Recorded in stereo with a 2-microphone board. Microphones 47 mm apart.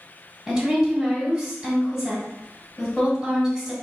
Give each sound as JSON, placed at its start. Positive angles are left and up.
{"t": 0.5, "sound": "a woman speaking", "side_deg": -5, "distance_m": 1.6}